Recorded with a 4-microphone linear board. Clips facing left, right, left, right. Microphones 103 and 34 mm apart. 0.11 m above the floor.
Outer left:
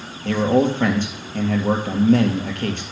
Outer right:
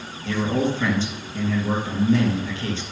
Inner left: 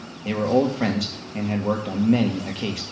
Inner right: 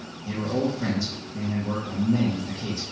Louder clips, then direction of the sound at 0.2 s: Outer left 5 dB, inner left 6 dB; 60° left (ahead or behind).